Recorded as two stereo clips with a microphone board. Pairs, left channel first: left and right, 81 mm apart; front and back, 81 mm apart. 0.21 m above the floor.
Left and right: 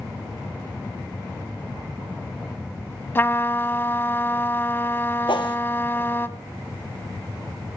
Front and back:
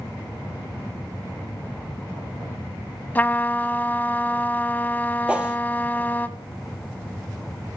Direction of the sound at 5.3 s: 105° left.